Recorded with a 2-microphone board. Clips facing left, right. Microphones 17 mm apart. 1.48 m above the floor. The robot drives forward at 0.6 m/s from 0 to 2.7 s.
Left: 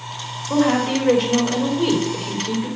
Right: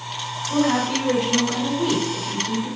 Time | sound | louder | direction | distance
0.5 | a woman speaking | left 3 dB | 65° left (ahead or behind) | 5.5 m